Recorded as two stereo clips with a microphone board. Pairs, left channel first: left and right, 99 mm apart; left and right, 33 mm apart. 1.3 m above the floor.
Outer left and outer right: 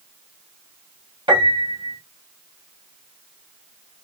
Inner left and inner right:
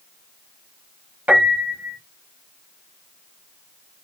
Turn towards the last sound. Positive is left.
turn(degrees=-60)  # may be behind; listen again after turning